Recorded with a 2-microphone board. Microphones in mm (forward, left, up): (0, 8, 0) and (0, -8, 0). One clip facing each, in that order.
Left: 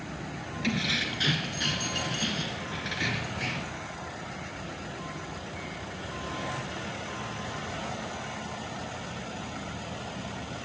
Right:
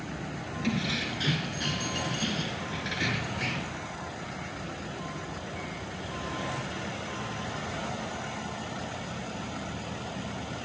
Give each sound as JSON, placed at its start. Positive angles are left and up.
{"t": 0.6, "sound": "keys jangling", "side_deg": 25, "distance_m": 1.2}